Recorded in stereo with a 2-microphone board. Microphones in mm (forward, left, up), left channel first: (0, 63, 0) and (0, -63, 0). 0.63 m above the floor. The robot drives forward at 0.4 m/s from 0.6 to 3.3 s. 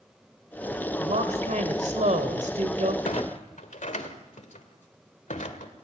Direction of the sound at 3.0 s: 75° left (ahead or behind).